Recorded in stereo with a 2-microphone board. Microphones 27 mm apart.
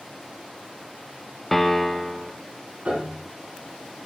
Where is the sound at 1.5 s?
15° left (ahead or behind), 0.8 m.